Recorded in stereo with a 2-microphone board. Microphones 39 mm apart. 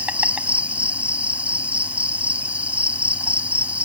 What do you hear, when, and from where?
0.0 s an insect: 30° right (ahead or behind)